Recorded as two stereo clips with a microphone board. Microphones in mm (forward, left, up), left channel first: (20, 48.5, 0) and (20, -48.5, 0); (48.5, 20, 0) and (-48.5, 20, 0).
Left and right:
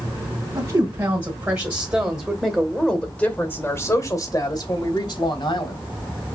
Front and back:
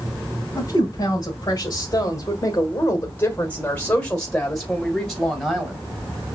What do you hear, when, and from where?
0.6 s a woman speaking: 50° right, 2 m; by 5.8 s 95° left, 2 m